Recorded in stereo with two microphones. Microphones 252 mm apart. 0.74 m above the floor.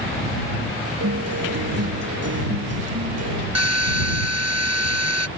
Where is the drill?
85° right.